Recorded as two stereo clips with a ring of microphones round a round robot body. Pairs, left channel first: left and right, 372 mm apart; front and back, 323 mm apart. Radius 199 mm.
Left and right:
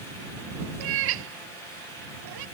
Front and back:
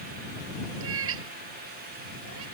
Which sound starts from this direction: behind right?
A cat meowing, at 0.8 s.